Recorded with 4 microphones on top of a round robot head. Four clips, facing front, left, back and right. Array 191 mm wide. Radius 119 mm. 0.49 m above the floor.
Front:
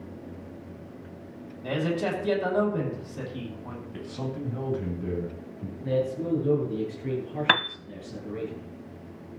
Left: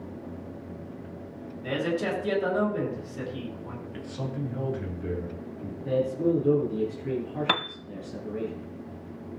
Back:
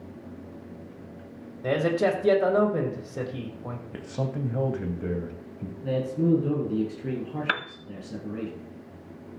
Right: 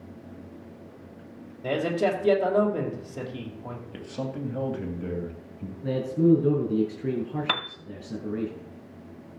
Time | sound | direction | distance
1.6 | a man speaking | 145° right | 3.5 m
3.9 | a man speaking | 155° right | 3 m
5.8 | a man speaking | 110° right | 9.5 m
7.5 | a piano | 25° left | 1.1 m